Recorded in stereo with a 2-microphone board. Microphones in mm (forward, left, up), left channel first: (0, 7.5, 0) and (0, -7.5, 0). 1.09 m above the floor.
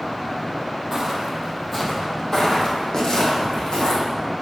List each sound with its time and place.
0.9 s footsteps: 10° right (ahead or behind), 2.5 m; by 4.0 s 60° left (ahead or behind), 4 m